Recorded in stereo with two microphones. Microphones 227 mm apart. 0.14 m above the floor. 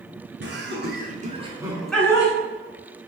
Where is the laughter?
55° right (ahead or behind), 1.8 m; by 2.3 s 20° left (ahead or behind), 1.2 m.